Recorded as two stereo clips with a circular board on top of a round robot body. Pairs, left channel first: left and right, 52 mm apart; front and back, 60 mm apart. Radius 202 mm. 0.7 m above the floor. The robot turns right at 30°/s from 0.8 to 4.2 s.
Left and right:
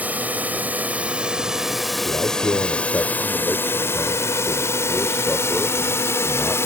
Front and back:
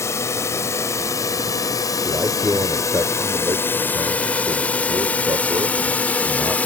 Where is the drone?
35° right; by 6.7 s 65° left.